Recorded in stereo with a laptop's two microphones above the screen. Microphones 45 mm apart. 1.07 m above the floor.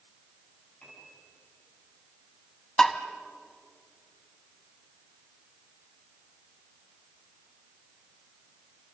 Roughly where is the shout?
No shout in this recording.